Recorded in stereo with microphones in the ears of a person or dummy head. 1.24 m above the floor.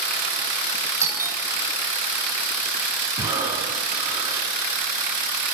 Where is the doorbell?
15° right (ahead or behind), 2.5 m.